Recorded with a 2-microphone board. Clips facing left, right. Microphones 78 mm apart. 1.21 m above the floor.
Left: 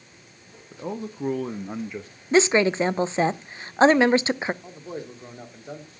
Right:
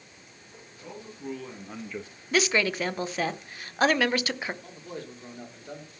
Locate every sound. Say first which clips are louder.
0.7 s a man speaking: left 11 dB; 60° left (ahead or behind), 1.1 m; by 2.1 s 10° right (ahead or behind), 0.5 m
2.3 s a woman speaking: left 7 dB; 25° left (ahead or behind), 0.6 m
4.6 s a man speaking: left 4 dB; 15° left (ahead or behind), 1.6 m